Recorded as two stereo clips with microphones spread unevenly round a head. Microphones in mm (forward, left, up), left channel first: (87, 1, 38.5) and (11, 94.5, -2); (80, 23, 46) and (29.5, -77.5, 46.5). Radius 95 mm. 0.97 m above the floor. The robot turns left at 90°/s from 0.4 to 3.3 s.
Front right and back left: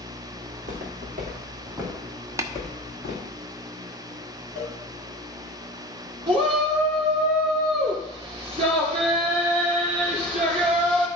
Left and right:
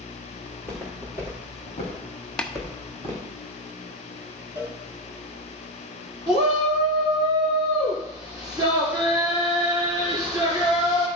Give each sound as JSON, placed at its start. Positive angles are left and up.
{"t": 0.5, "sound": "footsteps", "azimuth_deg": 175, "distance_m": 4.5}
{"t": 2.4, "sound": "tapping", "azimuth_deg": 140, "distance_m": 0.6}
{"t": 4.5, "sound": "a cowbell", "azimuth_deg": -65, "distance_m": 4.5}
{"t": 6.3, "sound": "a shout", "azimuth_deg": 180, "distance_m": 2.5}